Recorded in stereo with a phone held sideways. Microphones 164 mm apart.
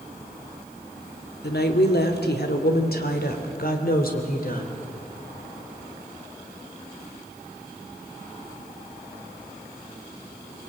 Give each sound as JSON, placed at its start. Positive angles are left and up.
{"t": 1.4, "sound": "a woman speaking", "side_deg": 80, "distance_m": 2.5}